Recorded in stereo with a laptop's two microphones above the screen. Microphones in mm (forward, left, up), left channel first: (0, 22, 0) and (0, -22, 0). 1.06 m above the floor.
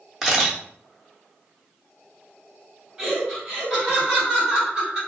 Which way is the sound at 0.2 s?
5° right (ahead or behind).